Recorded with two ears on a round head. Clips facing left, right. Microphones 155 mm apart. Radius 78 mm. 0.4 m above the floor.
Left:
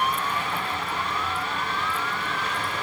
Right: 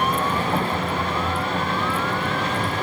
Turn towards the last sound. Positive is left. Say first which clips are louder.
# right 5 dB
turn(degrees=-30)  # may be behind; listen again after turning